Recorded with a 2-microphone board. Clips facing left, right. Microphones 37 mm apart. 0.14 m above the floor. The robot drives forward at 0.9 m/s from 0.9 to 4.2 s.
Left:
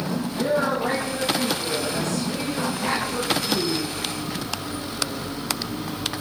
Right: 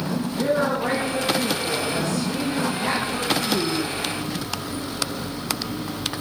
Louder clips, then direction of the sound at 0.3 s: Right 1 dB; 10° right (ahead or behind).